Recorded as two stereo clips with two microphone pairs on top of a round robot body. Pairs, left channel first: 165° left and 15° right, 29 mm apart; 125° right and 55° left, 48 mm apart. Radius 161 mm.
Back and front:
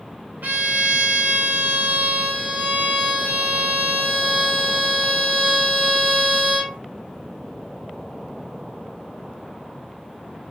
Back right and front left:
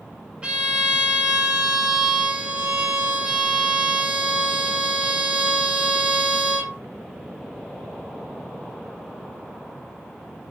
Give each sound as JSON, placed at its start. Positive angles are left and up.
{"t": 0.4, "sound": "a violin", "azimuth_deg": -15, "distance_m": 0.5}